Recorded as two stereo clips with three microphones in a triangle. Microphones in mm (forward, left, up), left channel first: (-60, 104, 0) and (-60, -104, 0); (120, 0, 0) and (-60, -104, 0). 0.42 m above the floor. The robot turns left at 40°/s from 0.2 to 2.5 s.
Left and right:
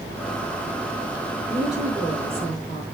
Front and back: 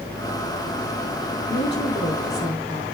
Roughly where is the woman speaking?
Ahead.